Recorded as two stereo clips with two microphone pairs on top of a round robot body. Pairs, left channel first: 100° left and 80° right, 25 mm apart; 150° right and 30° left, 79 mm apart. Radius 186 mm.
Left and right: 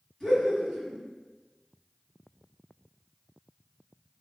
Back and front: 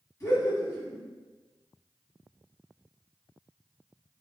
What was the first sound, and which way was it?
Laughter, 170° left.